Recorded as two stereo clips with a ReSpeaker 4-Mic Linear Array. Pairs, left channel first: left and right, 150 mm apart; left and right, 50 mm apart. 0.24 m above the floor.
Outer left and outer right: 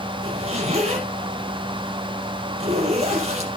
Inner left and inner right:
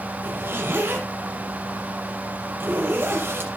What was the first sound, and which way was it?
A zipper, 45° right (ahead or behind).